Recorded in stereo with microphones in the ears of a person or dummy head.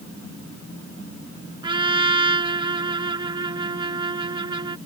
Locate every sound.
1.6 s a trumpet: 20° right (ahead or behind)